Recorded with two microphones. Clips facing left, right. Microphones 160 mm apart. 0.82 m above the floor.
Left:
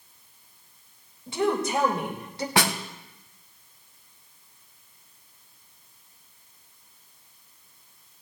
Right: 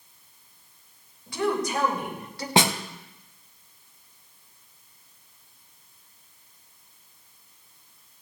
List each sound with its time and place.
1.3 s a woman speaking: 25° left (ahead or behind), 3.5 m
2.6 s a snare drum: 25° right (ahead or behind), 0.7 m